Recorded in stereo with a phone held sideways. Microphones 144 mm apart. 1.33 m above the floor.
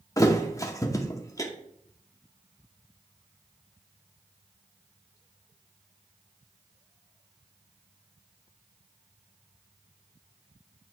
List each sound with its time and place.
0.2 s a thud: 25° left (ahead or behind), 0.9 m